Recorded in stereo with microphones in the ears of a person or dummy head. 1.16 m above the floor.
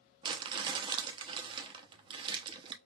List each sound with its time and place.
0.2 s crumpling: 25° right (ahead or behind), 0.9 m